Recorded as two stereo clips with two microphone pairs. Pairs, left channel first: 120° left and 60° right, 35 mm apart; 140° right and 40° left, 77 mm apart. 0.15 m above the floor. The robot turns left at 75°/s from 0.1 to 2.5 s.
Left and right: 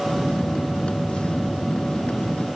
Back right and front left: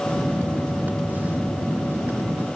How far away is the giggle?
No giggle in this recording.